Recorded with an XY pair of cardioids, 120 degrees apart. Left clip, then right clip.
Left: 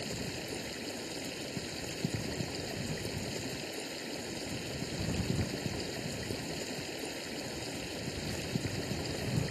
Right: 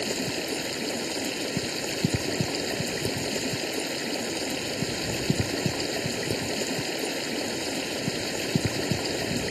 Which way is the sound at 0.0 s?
55° right.